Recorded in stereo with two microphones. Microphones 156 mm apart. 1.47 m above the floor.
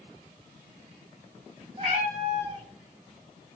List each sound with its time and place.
1.8 s a cat meowing: 40° right (ahead or behind), 1.8 m